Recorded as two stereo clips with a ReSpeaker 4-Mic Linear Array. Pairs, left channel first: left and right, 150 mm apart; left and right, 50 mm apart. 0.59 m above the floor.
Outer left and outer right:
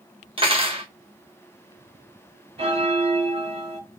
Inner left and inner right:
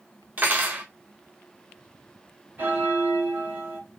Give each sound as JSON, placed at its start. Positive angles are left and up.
{"t": 0.4, "sound": "cutlery clinking", "side_deg": -35, "distance_m": 0.8}
{"t": 2.6, "sound": "a bell", "side_deg": -40, "distance_m": 1.5}